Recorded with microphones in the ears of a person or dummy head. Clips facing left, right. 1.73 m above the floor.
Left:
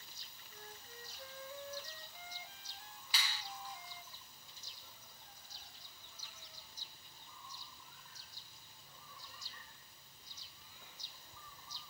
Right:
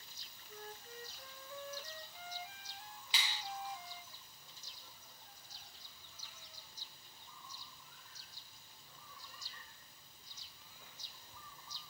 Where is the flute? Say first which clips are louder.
Right 5 dB; 60° right (ahead or behind), 1.8 m.